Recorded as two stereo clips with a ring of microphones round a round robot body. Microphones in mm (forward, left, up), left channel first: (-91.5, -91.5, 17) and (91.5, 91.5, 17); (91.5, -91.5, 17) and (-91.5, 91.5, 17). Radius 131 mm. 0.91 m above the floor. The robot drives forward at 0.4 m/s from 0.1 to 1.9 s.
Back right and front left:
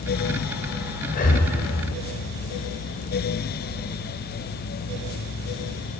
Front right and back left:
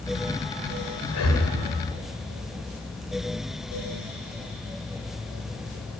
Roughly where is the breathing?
Right.